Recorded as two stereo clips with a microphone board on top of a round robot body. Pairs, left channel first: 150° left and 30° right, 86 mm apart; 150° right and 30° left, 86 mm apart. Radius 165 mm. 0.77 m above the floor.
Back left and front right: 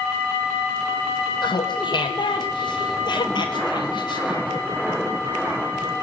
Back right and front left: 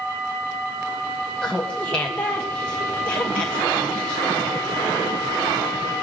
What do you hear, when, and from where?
1.4 s laughter: 135° left, 1.7 m